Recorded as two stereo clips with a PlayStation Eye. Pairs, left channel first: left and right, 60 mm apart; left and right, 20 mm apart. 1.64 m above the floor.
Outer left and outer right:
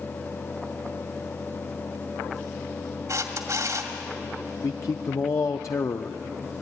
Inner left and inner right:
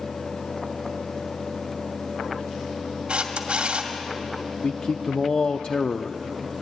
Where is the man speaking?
60° left (ahead or behind), 0.7 m.